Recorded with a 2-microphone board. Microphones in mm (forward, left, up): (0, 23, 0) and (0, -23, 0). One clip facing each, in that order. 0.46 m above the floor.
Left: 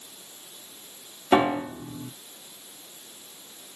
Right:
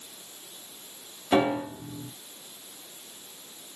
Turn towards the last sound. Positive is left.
turn(degrees=25)  # may be behind; listen again after turning